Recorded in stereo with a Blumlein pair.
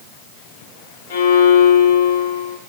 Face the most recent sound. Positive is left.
turn(degrees=60)